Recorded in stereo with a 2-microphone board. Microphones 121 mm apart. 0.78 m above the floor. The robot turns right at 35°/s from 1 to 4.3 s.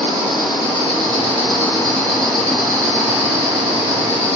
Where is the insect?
135° left, 1.1 m; by 4.4 s 110° right, 1.1 m.